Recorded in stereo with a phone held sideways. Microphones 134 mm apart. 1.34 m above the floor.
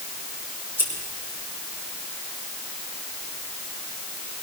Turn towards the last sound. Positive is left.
turn(degrees=-15)  # may be behind; listen again after turning